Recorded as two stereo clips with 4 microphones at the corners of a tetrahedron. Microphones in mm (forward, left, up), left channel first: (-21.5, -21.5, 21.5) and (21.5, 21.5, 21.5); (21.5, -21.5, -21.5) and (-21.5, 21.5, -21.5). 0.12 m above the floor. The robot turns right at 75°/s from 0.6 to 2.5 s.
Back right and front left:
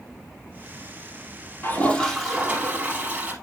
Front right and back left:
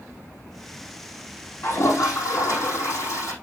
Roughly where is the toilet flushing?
Right.